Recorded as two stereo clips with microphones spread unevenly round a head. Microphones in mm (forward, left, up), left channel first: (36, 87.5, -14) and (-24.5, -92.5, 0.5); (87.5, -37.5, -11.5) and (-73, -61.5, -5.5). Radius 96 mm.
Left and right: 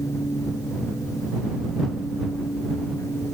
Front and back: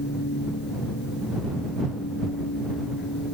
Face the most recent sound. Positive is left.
turn(degrees=-5)